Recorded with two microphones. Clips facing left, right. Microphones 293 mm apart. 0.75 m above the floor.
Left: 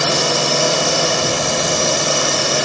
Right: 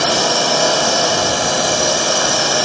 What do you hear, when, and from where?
0.0 s a drone: 30° left (ahead or behind)